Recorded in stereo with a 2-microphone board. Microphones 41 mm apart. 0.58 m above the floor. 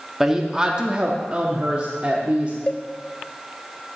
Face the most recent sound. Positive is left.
turn(degrees=20)  # may be behind; listen again after turning